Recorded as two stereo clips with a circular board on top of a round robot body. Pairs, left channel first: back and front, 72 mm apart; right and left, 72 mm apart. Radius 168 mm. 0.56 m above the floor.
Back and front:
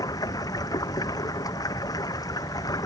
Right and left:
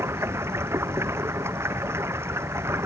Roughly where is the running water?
Behind left.